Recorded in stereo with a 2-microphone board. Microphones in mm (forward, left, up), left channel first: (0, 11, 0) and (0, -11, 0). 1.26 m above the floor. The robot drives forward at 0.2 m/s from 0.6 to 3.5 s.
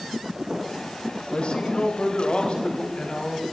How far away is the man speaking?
About 1.3 m.